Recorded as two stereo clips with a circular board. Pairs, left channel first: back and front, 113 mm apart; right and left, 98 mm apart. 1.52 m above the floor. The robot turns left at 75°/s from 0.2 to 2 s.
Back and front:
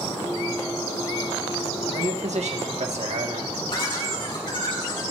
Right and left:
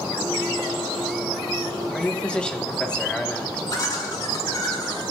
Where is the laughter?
140° right, 5 m.